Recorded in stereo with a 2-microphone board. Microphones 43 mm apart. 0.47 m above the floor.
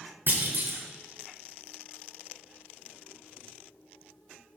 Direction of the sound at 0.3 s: 50° right (ahead or behind).